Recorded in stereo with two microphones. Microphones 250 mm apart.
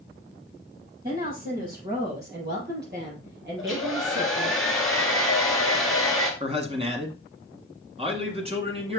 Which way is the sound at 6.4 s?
25° right (ahead or behind).